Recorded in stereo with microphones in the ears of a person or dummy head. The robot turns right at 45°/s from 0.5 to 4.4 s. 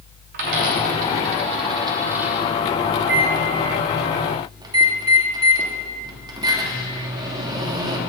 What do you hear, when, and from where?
0.3 s a dropped coin: 55° right (ahead or behind), 0.8 m; by 2.5 s 5° left (ahead or behind), 0.8 m
3.0 s a microwave: 80° right, 1.2 m; by 8.0 s 20° right (ahead or behind), 1.2 m